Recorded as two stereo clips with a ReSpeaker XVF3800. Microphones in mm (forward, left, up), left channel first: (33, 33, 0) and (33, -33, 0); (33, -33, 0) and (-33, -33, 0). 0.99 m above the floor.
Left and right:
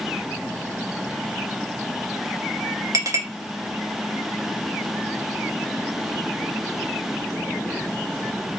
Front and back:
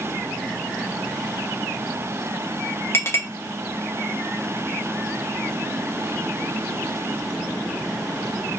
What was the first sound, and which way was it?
A clink, 55° right.